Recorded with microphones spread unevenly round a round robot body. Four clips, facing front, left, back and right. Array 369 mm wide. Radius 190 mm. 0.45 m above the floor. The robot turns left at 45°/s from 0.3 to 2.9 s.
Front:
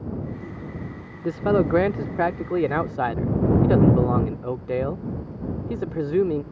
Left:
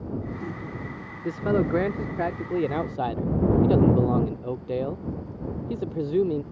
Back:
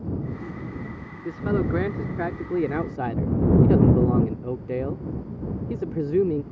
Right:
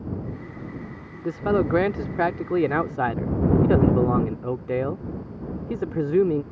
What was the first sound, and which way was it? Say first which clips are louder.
A man speaking: right 2 dB, front 5 dB; 35° right.